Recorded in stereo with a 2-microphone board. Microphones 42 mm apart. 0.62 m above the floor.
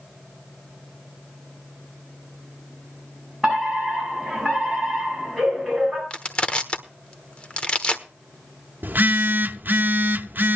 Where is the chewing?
No chewing in this recording.